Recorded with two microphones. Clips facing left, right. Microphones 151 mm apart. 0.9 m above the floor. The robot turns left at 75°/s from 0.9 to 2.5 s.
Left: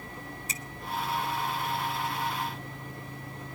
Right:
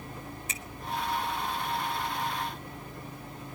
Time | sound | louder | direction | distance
0.5 | a finger snap | left 1 dB | 35° left (ahead or behind) | 1.4 m